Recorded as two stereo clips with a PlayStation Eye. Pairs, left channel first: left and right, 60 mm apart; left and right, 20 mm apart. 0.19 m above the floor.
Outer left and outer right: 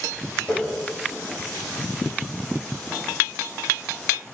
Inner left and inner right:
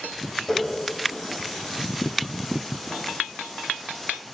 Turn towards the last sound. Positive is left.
turn(degrees=25)  # may be behind; listen again after turning